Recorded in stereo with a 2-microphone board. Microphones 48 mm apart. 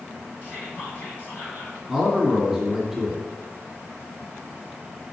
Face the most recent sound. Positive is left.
turn(degrees=5)  # may be behind; listen again after turning